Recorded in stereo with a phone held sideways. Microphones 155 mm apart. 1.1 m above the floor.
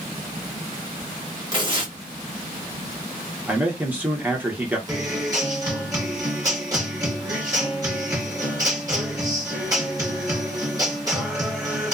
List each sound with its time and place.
1.5 s tearing paper: 30° right (ahead or behind), 1.3 m
3.5 s a man speaking: 10° right (ahead or behind), 0.9 m
4.9 s a guitar: 25° right (ahead or behind), 1.4 m